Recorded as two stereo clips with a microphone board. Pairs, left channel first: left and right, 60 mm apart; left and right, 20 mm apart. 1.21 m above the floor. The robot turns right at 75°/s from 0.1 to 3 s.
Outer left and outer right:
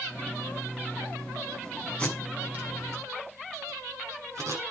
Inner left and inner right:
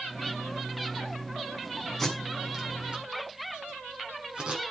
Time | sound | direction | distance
2.0 | tape being pulled | 20° left (ahead or behind) | 6.5 m